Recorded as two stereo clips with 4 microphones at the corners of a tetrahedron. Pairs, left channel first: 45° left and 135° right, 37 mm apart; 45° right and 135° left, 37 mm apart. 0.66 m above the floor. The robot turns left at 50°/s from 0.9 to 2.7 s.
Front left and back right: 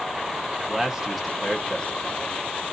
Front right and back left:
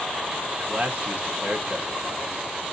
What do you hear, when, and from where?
0.6 s a man speaking: 155° left, 1.0 m; by 2.4 s 80° left, 1.0 m